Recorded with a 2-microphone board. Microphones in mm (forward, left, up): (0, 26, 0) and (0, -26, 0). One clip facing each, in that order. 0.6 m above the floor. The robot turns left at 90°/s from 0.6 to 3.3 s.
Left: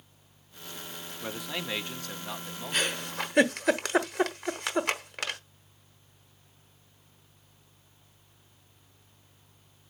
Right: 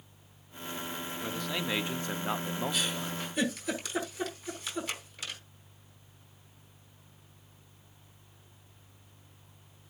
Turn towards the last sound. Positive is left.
turn(degrees=70)  # may be behind; listen again after turning